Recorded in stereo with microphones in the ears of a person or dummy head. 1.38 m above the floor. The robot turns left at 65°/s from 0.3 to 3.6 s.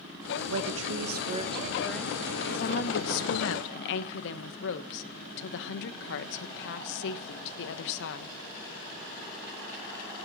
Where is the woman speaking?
90° right, 1.2 m; by 8.3 s 70° left, 1.2 m.